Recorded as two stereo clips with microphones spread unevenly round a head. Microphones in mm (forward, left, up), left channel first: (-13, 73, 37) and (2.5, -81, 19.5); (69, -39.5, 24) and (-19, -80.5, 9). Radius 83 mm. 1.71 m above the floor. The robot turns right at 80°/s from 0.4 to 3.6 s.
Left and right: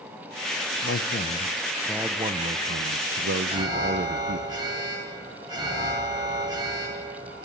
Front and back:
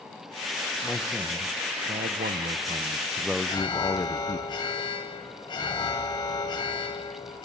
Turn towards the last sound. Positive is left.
turn(degrees=-15)